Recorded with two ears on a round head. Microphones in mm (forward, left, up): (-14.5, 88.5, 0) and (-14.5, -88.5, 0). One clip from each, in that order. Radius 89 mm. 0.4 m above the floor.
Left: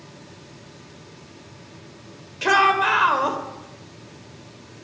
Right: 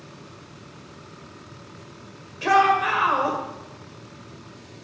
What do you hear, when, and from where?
2.4 s a shout: 35° left (ahead or behind), 1.7 m